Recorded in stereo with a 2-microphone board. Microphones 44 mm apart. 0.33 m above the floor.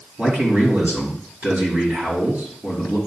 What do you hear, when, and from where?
0.2 s a man speaking: 40° right (ahead or behind), 4 m